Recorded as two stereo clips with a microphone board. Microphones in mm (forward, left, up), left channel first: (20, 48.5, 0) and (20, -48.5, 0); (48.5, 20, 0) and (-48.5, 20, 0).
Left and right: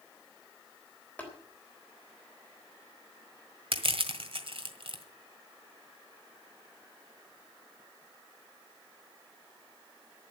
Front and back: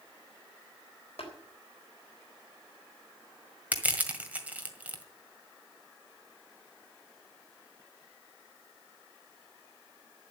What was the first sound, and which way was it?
Tapping, 15° left.